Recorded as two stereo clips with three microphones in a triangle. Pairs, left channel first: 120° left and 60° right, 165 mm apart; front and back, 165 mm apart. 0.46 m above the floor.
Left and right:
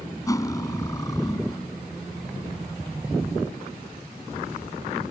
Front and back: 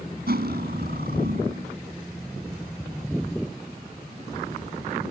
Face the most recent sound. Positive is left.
turn(degrees=-170)